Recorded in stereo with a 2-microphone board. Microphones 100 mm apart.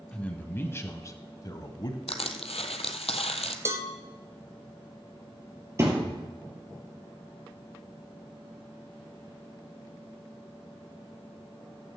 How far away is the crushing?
About 1.2 m.